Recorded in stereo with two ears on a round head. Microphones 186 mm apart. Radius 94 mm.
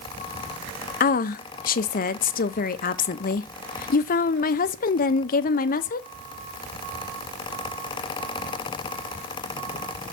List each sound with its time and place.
1.0 s a woman speaking: 45° left (ahead or behind), 0.5 m